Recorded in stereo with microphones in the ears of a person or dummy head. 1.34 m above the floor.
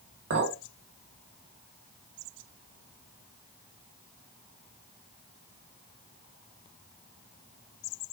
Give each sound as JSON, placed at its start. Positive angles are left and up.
{"t": 0.3, "sound": "a clink", "side_deg": -75, "distance_m": 1.4}